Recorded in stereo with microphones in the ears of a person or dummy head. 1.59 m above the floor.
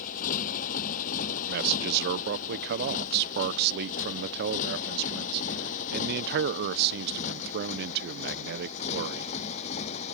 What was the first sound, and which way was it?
A motorcycle, 45° left (ahead or behind).